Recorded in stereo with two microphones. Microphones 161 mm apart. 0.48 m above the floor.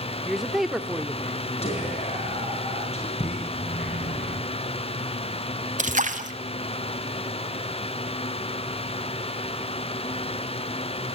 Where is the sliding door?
80° left, 7.5 m.